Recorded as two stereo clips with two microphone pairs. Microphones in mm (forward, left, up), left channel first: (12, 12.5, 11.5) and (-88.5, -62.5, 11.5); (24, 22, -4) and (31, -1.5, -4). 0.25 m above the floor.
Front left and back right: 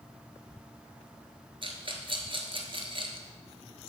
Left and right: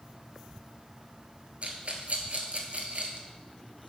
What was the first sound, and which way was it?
A rattle, 100° right.